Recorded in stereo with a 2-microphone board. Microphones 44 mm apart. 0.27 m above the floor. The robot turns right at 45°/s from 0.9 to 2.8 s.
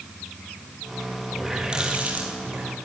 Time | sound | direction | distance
1.3 | a running tap | straight behind | 6 m